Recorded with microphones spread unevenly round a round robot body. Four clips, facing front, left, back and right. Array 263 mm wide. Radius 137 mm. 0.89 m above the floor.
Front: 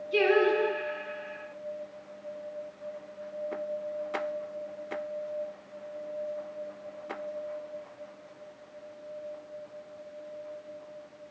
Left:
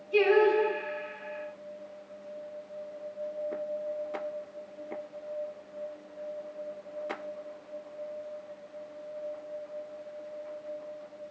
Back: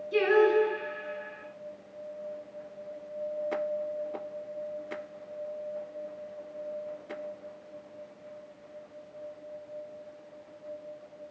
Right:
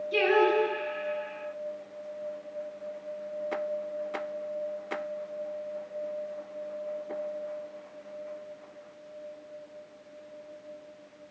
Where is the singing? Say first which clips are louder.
Left 1 dB, back 1 dB; 140° right, 8.5 m.